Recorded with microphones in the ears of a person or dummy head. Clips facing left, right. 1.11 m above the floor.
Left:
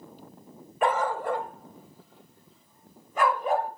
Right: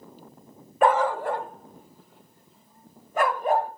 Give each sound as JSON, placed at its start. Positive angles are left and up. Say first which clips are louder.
{"t": 0.8, "sound": "a dog barking", "louder": "right 5 dB", "side_deg": -50, "distance_m": 0.7}